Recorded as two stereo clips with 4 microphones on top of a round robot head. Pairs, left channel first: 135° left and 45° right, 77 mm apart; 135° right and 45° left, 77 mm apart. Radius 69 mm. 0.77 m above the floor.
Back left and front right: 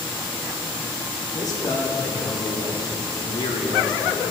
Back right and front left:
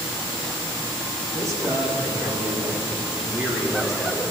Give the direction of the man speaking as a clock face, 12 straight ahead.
9 o'clock.